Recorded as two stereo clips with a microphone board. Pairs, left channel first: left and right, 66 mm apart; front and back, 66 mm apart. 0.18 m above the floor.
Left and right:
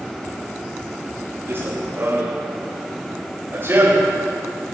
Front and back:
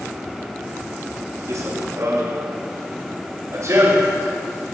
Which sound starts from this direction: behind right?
Running footsteps, at 1.5 s.